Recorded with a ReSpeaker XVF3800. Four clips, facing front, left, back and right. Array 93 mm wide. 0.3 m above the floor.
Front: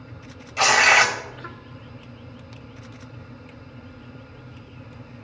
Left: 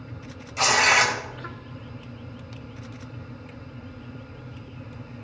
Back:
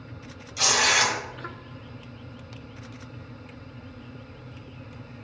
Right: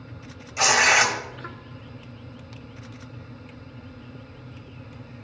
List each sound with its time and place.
0.6 s tearing paper: 10° right, 1.6 m